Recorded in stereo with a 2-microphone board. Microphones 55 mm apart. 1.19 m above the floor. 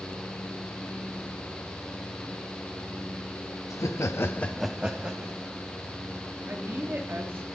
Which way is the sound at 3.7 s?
70° left (ahead or behind).